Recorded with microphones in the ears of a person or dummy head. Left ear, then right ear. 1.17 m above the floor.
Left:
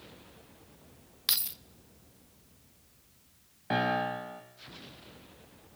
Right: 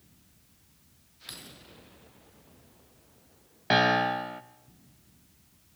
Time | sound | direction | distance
1.3 | keys jangling | 40° left (ahead or behind) | 0.6 m
3.7 | a piano | 80° right | 1.0 m